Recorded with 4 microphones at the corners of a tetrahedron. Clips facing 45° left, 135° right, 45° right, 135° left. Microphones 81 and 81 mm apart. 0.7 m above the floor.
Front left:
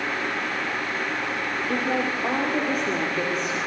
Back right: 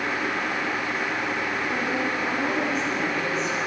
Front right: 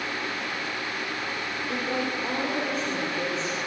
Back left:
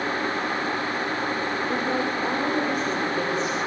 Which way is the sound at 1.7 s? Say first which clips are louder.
Front left 4 dB, back left 1 dB; 65° left.